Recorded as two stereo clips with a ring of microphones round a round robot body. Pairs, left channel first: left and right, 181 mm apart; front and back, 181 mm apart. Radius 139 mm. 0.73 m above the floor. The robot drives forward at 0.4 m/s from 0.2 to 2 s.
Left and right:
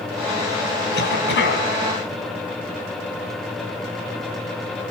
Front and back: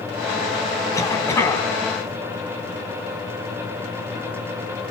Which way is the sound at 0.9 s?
70° left.